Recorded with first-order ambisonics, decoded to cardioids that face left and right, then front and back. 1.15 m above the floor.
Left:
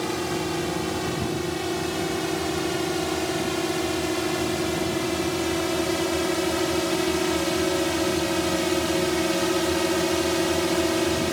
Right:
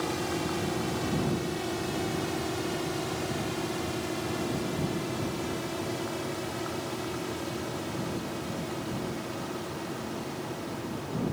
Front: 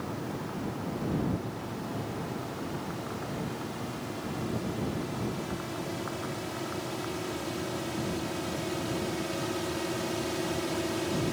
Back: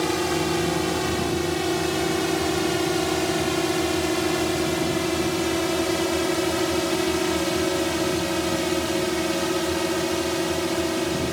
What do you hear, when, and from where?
0.0 s a drone: 165° left; by 11.3 s 115° left